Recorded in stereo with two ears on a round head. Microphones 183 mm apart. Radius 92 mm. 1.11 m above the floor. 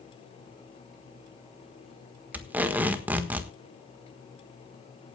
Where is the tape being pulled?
10° right (ahead or behind), 1.3 m.